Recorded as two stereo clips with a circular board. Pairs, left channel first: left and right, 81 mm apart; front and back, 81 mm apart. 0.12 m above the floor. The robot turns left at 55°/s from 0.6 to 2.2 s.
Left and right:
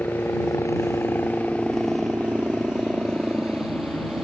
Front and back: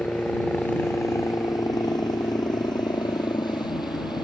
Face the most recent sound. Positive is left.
turn(degrees=-5)